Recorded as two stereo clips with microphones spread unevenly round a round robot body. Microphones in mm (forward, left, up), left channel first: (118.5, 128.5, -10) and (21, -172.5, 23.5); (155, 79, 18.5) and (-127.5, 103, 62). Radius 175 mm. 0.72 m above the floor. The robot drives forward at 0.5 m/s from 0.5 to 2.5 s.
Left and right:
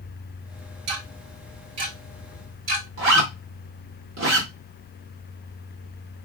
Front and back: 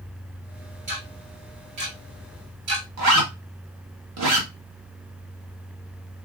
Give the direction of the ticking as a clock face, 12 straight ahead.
4 o'clock.